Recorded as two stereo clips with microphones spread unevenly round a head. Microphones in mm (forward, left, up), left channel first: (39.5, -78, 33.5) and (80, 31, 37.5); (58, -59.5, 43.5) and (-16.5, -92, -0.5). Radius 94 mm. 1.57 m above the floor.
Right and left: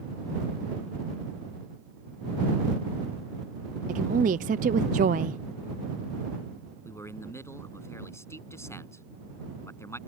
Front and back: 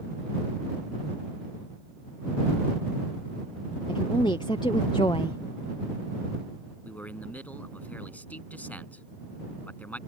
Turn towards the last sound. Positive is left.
turn(degrees=-45)